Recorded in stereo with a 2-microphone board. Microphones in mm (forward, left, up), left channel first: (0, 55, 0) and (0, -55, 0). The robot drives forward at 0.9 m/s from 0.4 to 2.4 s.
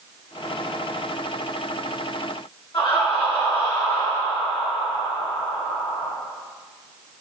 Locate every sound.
2.7 s laughter: 35° left (ahead or behind), 1.5 m